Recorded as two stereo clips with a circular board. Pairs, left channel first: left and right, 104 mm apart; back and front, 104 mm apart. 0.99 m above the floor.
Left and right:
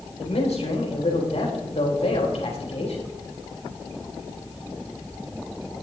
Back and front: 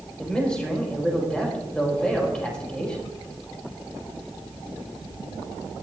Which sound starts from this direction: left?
A man speaking, at 0.2 s.